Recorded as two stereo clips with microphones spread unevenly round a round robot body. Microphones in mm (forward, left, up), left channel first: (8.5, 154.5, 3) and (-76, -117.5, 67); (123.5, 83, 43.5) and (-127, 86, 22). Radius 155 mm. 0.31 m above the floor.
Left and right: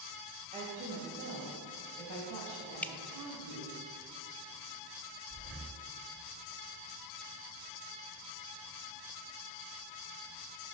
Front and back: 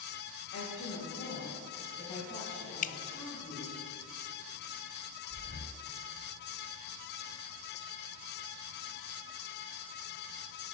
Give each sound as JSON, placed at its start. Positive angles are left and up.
{"t": 0.5, "sound": "a woman speaking", "azimuth_deg": -30, "distance_m": 2.0}
{"t": 2.8, "sound": "dripping", "azimuth_deg": 25, "distance_m": 0.5}
{"t": 5.3, "sound": "breathing", "azimuth_deg": -110, "distance_m": 6.5}